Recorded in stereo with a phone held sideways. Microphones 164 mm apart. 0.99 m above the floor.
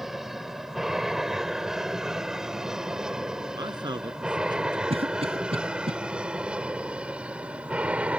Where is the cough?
40° right (ahead or behind).